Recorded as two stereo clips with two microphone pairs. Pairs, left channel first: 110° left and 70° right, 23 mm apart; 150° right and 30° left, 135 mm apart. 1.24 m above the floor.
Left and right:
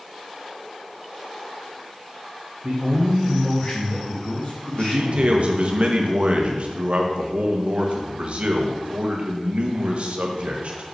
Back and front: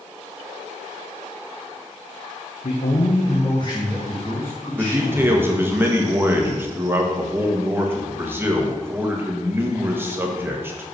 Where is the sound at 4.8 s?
45° right, 1.6 m.